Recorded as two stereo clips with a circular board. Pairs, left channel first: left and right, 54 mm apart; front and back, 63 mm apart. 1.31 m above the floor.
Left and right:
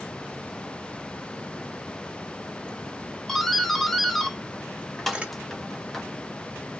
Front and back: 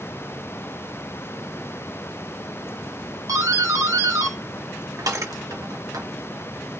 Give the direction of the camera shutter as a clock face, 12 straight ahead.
5 o'clock.